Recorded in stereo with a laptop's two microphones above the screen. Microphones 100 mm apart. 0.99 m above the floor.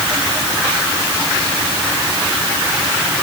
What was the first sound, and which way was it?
Only background noise.